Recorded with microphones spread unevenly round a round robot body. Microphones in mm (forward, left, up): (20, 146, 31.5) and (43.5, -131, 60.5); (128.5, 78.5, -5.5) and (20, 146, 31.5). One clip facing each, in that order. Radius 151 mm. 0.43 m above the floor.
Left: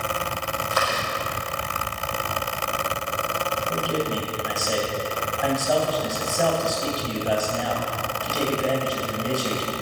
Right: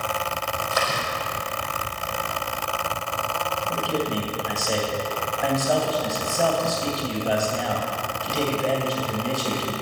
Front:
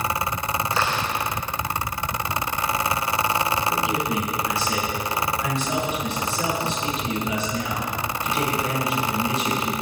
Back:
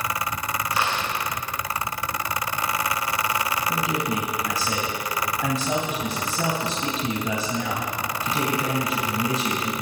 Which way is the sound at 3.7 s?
175° right.